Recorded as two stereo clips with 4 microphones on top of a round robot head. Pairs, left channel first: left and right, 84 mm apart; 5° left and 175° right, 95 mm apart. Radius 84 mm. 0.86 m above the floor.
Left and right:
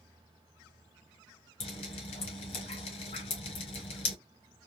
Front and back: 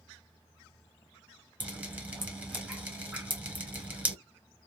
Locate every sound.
1.6 s dripping: 115° left, 1.2 m